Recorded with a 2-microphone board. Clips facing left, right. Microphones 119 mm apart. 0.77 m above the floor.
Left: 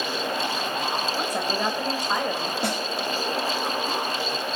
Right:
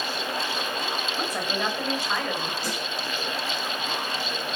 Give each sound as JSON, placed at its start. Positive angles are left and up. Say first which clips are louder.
{"t": 1.1, "sound": "a woman speaking", "louder": "left 2 dB", "side_deg": 10, "distance_m": 4.0}
{"t": 2.6, "sound": "a snare drum", "louder": "left 5 dB", "side_deg": 65, "distance_m": 5.0}